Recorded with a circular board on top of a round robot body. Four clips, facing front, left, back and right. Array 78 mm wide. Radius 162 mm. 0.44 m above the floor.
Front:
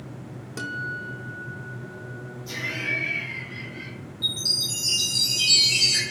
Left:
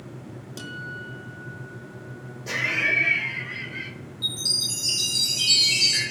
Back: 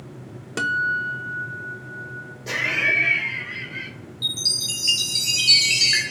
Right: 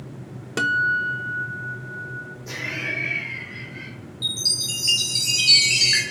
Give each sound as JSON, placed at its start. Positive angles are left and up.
{"t": 0.6, "sound": "a guitar", "azimuth_deg": -120, "distance_m": 0.8}
{"t": 2.5, "sound": "laughter", "azimuth_deg": 155, "distance_m": 3.0}
{"t": 4.2, "sound": "a chime", "azimuth_deg": -145, "distance_m": 5.5}